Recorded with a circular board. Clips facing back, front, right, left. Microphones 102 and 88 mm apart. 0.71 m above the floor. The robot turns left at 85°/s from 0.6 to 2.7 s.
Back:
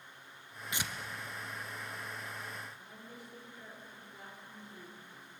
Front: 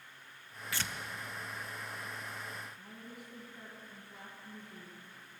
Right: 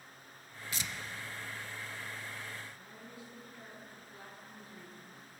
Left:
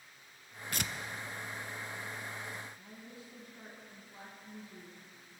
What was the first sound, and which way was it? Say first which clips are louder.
Tearing paper: even, left 3 dB; 110° left.